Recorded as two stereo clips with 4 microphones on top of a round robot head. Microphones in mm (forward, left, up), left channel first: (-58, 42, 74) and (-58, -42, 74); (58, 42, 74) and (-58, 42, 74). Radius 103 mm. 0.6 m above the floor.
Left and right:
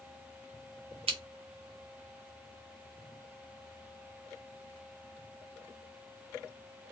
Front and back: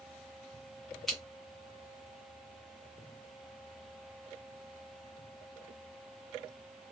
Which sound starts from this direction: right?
Scissors, at 1.1 s.